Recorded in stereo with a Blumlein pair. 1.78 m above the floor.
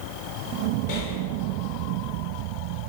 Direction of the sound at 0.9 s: 50° left.